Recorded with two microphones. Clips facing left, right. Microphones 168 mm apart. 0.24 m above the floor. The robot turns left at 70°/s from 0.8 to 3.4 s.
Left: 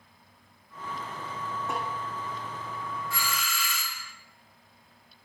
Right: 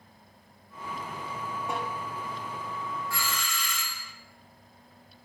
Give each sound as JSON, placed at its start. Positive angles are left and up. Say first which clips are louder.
{"t": 1.7, "sound": "a snare drum", "louder": "right 1 dB", "side_deg": -15, "distance_m": 8.5}
{"t": 3.1, "sound": "a doorbell", "louder": "even", "side_deg": 20, "distance_m": 2.5}